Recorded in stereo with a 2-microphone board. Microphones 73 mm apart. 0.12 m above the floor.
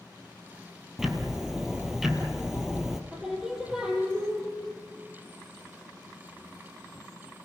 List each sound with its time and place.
1.0 s ticking: 5° right (ahead or behind), 1.8 m
3.1 s singing: 5° right (ahead or behind), 4.5 m